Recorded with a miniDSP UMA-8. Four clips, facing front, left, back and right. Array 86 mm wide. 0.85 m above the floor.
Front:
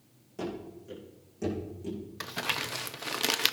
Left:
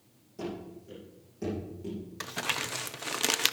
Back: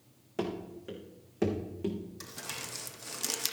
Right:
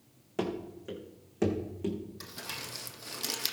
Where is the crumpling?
45° left, 0.6 m.